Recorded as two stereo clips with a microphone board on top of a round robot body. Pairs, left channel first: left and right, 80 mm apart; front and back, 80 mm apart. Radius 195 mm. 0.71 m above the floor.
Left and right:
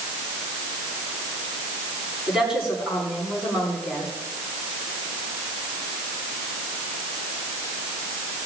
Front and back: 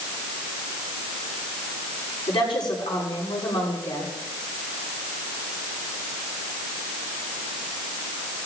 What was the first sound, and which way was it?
A woman speaking, 5° right.